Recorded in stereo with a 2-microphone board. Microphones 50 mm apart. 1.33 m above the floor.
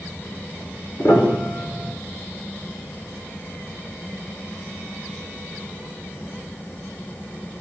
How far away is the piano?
About 5.5 m.